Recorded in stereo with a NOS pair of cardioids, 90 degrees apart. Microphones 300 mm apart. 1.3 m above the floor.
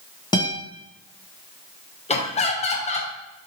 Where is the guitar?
15° left, 1.1 m.